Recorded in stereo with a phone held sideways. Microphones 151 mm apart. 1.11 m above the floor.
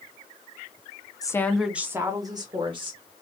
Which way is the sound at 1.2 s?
25° left (ahead or behind).